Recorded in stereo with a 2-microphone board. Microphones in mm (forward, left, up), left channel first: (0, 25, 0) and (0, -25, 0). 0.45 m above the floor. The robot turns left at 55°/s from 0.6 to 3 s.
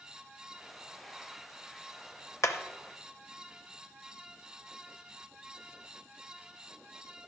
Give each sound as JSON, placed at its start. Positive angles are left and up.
{"t": 2.4, "sound": "hammering", "side_deg": 75, "distance_m": 0.6}